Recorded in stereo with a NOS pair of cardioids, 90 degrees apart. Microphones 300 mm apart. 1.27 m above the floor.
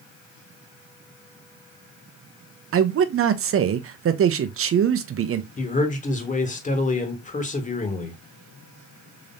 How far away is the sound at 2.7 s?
About 0.8 m.